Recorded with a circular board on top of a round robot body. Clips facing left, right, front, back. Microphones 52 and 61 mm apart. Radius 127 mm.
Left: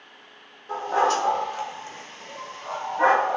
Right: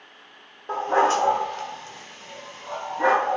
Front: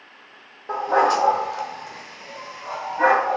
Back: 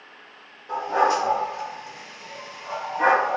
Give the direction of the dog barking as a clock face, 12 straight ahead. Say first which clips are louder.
Right 2 dB, front 2 dB; 2 o'clock.